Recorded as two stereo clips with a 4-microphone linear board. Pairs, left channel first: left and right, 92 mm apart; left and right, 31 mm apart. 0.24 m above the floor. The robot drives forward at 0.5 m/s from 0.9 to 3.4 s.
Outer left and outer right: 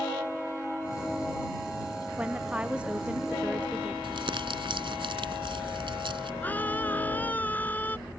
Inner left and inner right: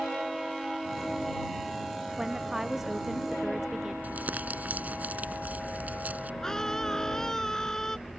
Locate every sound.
2.2 s a woman speaking: 15° right (ahead or behind)
4.0 s crumpling: 65° right (ahead or behind)
6.4 s a scream: 20° left (ahead or behind)